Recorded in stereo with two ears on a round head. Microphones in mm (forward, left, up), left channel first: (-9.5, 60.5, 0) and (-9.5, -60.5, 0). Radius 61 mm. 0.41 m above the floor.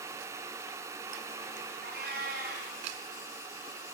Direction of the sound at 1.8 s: 80° right.